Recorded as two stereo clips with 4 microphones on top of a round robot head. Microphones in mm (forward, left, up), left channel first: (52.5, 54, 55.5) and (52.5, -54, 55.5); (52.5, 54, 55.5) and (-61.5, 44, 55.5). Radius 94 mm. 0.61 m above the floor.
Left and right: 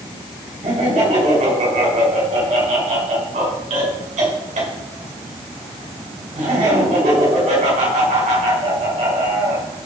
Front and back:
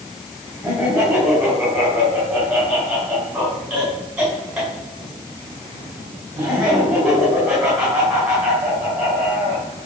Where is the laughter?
90° right, 6.5 m.